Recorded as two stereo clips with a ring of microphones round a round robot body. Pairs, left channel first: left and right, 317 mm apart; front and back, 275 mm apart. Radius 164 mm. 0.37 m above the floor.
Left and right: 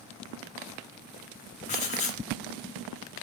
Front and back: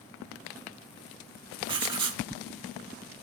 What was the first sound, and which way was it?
Writing, 130° left.